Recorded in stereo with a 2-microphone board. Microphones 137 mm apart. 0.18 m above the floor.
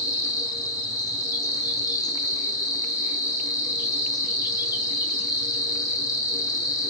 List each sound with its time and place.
0.0 s an insect: 30° left (ahead or behind), 0.8 m